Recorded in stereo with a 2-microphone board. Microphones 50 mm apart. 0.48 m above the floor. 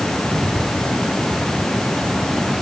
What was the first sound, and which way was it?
Only background noise.